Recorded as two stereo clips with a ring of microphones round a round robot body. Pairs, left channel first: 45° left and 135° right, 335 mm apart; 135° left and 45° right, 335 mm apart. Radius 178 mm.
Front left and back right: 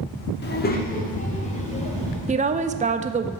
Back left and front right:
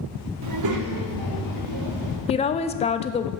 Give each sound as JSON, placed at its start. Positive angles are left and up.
{"t": 0.4, "sound": "a child speaking", "azimuth_deg": -10, "distance_m": 1.2}
{"t": 2.3, "sound": "a woman speaking", "azimuth_deg": -175, "distance_m": 0.5}